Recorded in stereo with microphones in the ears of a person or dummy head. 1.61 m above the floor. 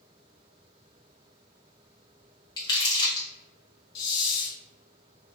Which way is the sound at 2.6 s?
25° left (ahead or behind).